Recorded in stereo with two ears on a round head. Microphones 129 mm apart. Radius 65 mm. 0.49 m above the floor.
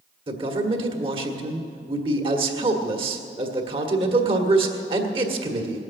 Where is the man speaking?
35° right (ahead or behind), 1.6 m.